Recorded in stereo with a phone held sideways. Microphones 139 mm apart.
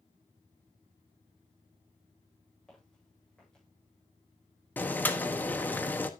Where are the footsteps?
5° left (ahead or behind), 8.5 m.